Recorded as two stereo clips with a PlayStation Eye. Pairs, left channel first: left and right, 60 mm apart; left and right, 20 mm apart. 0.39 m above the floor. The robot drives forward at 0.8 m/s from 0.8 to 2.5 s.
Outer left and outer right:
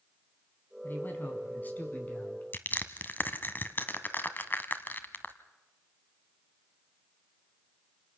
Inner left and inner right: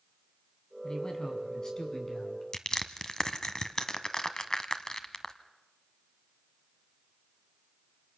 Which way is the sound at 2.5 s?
35° left (ahead or behind).